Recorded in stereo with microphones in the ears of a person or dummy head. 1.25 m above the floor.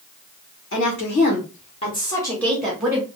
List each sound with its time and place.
0.7 s a woman speaking: 65° left (ahead or behind), 1.4 m; by 3.1 s 10° right (ahead or behind), 1.5 m